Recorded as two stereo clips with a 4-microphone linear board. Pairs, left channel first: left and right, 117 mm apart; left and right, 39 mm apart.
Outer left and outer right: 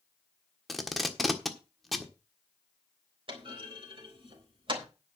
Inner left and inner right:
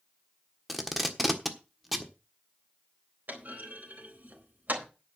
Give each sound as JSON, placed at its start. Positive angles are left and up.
{"t": 0.7, "sound": "tape being pulled", "side_deg": 0, "distance_m": 1.4}
{"t": 3.3, "sound": "a clunk", "side_deg": -50, "distance_m": 4.0}